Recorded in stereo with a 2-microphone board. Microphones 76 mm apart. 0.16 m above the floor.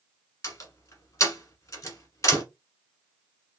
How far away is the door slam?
About 1.3 m.